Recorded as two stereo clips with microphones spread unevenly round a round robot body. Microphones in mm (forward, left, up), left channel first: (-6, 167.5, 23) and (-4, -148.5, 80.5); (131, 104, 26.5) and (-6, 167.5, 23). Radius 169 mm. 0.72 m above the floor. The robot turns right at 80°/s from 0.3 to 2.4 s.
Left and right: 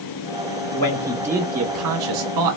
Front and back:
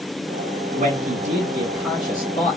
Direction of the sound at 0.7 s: 140° left.